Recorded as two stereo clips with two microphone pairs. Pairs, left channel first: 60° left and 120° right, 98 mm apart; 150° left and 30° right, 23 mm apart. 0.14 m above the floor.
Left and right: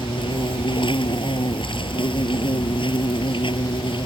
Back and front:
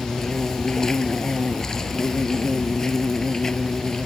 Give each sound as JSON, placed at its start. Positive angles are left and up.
{"t": 0.0, "sound": "an insect", "azimuth_deg": 80}